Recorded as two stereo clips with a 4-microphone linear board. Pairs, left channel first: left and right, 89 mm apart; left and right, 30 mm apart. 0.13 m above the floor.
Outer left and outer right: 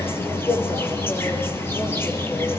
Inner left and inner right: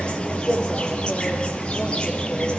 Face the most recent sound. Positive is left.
turn(degrees=25)  # may be behind; listen again after turning